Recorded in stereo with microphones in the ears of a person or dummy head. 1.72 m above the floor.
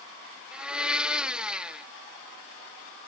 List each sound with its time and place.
0.5 s a blender: 5° right (ahead or behind)